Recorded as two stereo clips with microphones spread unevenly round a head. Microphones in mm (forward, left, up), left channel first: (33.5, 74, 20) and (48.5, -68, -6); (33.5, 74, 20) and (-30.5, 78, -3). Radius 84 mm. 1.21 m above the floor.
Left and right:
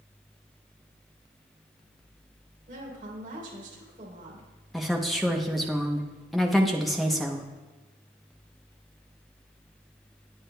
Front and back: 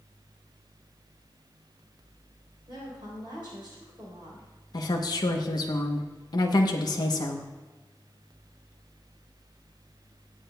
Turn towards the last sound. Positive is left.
turn(degrees=5)